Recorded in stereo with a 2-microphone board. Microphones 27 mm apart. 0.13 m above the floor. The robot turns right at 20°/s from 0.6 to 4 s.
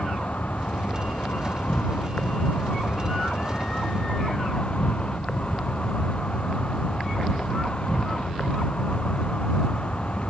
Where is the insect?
65° left; by 10.3 s 135° left.